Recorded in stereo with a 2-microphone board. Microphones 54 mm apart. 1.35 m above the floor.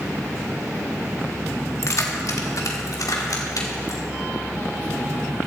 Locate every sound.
1.8 s keys jangling: 55° left (ahead or behind), 1.4 m; by 4.0 s 80° left, 3 m